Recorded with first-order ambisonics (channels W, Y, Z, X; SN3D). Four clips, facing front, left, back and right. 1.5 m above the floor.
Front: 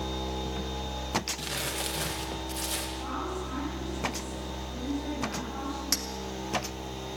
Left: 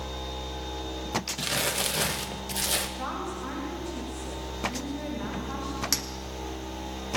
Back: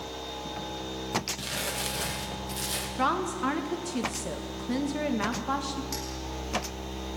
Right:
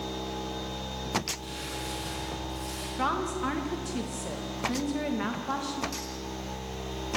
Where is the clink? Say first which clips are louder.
Left 7 dB, front 5 dB; 55° left, 1.6 m.